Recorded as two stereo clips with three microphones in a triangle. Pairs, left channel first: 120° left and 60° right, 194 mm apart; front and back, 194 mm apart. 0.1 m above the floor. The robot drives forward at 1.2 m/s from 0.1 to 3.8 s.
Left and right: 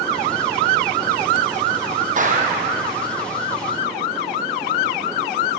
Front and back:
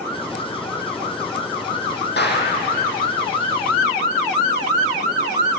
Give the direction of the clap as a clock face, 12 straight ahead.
1 o'clock.